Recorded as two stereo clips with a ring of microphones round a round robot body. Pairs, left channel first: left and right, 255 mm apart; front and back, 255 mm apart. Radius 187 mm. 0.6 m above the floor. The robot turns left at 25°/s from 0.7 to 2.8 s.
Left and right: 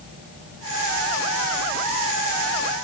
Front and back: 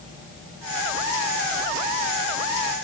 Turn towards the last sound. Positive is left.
No sound to turn to.